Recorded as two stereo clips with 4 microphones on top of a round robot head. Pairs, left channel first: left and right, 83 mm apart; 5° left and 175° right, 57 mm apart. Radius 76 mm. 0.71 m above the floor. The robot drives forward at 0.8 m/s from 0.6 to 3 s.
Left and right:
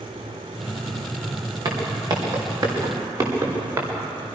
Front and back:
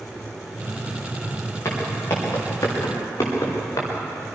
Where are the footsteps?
50° right, 7.5 m; by 3.9 s 40° right, 7.5 m.